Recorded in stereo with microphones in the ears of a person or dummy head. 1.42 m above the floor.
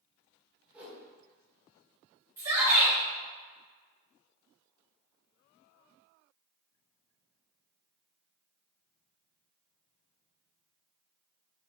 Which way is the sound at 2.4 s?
15° right (ahead or behind).